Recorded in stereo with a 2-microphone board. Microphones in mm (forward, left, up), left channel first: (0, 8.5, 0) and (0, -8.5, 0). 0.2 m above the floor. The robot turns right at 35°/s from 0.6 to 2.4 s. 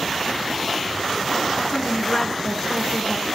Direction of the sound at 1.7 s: 50° left (ahead or behind).